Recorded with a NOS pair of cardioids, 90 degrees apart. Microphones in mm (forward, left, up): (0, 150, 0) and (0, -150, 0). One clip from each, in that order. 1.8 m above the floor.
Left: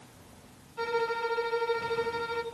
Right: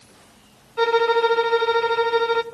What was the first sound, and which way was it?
A violin, 60° right.